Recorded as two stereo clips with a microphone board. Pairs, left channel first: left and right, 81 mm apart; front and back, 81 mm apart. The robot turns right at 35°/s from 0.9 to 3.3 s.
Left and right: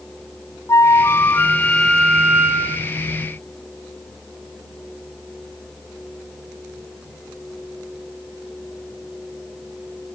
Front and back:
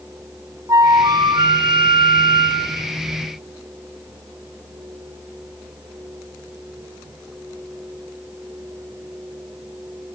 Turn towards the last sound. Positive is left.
turn(degrees=-135)